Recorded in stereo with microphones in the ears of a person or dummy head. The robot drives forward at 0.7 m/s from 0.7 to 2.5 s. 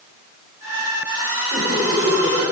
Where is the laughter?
40° right (ahead or behind), 5 m; by 2.4 s 35° right (ahead or behind), 5.5 m.